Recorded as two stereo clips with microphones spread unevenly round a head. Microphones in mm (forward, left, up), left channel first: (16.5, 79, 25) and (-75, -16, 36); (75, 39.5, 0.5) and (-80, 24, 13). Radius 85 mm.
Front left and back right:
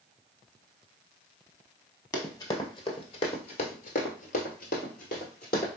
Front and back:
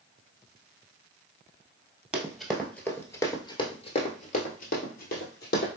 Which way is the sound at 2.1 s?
110° left.